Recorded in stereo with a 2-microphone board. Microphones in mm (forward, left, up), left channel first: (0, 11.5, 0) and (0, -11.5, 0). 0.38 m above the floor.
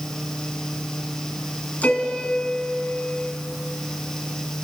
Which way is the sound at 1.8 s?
75° left (ahead or behind).